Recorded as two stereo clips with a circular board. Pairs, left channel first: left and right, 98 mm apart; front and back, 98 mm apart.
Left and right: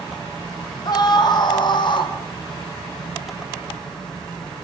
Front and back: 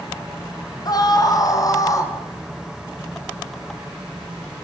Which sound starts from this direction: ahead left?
A scream, at 0.8 s.